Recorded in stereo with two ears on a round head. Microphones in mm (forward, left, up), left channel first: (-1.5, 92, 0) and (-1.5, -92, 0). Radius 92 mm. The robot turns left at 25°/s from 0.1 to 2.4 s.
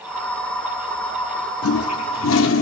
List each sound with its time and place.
1.6 s a toilet flushing: 75° left (ahead or behind), 0.6 m; by 2.6 s 65° left (ahead or behind), 0.6 m